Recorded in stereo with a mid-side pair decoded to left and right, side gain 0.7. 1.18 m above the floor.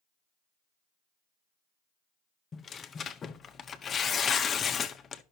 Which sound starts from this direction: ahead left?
Tearing paper, at 2.5 s.